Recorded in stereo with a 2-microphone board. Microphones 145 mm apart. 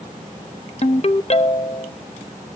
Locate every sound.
0.8 s a ringtone: 45° left (ahead or behind), 0.7 m